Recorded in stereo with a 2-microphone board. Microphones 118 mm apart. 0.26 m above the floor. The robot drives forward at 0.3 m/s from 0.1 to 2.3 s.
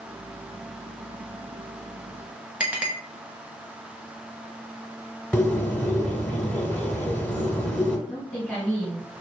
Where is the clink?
10° right (ahead or behind), 0.9 m.